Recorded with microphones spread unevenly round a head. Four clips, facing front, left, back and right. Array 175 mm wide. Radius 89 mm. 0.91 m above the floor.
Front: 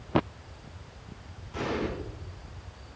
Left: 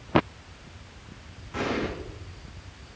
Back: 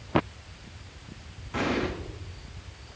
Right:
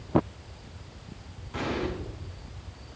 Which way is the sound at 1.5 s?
170° left.